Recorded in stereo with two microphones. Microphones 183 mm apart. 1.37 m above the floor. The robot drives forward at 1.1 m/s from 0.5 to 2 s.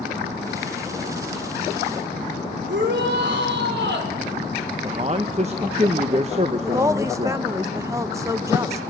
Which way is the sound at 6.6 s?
15° right (ahead or behind).